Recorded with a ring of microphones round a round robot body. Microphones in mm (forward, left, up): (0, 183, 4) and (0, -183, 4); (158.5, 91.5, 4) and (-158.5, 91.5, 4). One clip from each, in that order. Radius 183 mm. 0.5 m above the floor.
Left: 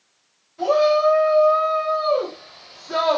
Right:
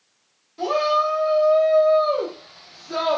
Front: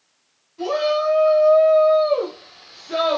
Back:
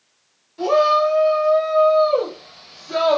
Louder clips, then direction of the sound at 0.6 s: Left 3 dB, back 5 dB; 135° right.